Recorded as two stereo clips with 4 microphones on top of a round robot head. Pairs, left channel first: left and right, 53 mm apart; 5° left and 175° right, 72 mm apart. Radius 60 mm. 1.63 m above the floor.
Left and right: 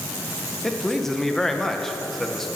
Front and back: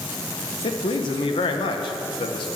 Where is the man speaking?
5° left, 1.6 m.